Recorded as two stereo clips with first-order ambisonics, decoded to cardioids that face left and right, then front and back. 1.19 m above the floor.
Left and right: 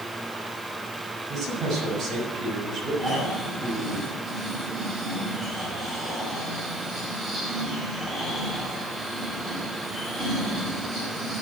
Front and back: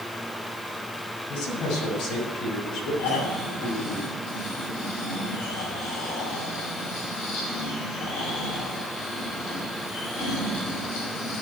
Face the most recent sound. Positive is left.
turn(degrees=-10)